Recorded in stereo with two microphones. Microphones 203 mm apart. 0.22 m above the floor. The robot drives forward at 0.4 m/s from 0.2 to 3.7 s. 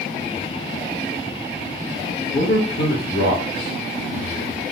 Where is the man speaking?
50° left (ahead or behind), 3 m; by 4.6 s 45° left (ahead or behind), 3.5 m.